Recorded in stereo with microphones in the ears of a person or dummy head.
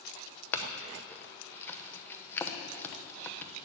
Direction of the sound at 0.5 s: 10° left (ahead or behind).